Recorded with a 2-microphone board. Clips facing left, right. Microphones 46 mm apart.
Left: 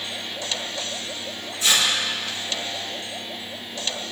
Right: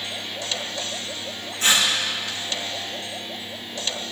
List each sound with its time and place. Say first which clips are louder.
1.6 s tearing paper: right 1 dB; 50° right (ahead or behind), 7.5 m